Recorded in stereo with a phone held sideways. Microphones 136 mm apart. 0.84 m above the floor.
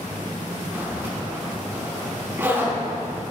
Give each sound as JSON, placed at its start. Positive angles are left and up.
{"t": 0.7, "sound": "a zipper", "side_deg": -20, "distance_m": 6.5}